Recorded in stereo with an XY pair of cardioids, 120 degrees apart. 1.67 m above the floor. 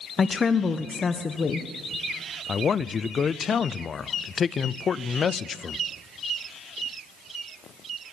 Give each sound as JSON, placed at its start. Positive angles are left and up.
{"t": 0.2, "sound": "a woman speaking", "azimuth_deg": 30, "distance_m": 1.4}
{"t": 2.5, "sound": "a man speaking", "azimuth_deg": 35, "distance_m": 0.7}